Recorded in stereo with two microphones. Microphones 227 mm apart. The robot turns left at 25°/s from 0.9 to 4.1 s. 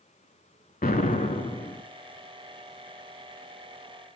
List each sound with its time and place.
0.8 s an explosion: 40° left (ahead or behind), 0.6 m; by 1.8 s 15° left (ahead or behind), 0.6 m